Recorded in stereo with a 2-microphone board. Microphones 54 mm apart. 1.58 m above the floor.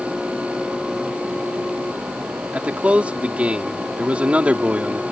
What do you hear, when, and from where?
2.5 s a man speaking: 25° right (ahead or behind)